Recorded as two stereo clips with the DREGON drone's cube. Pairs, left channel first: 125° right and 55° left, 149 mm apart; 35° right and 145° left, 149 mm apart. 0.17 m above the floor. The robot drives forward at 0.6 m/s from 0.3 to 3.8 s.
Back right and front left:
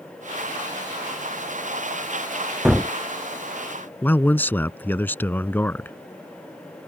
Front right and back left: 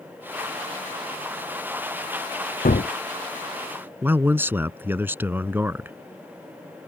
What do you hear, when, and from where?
2.6 s a gunshot: 30° right
4.0 s a man speaking: 170° right